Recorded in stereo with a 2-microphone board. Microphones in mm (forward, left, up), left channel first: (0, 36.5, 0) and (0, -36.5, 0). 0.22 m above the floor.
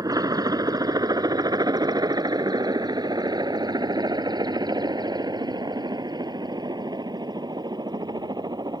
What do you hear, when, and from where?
0.0 s a helicopter: 60° right (ahead or behind); by 8.8 s 75° right (ahead or behind)